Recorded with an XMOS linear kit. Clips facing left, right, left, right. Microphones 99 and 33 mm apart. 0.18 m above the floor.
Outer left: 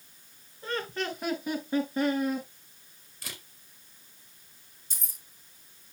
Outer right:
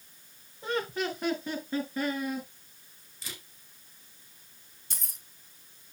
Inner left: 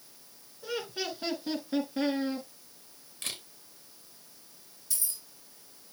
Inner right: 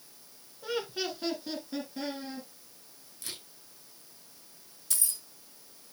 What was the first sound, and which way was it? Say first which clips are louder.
Laughter: outer right 2 dB, inner right 1 dB; 20° right (ahead or behind).